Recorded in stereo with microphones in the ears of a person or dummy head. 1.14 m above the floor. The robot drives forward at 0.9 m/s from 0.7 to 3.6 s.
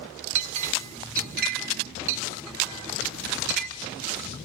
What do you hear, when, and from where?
0.3 s a clink: 40° right (ahead or behind), 2 m; by 3.7 s 55° right (ahead or behind), 1.6 m